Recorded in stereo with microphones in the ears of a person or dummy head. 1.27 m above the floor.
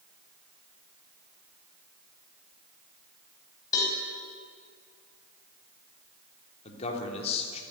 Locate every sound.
3.7 s a cowbell: 15° left (ahead or behind), 5 m
6.7 s a man speaking: 30° left (ahead or behind), 3.5 m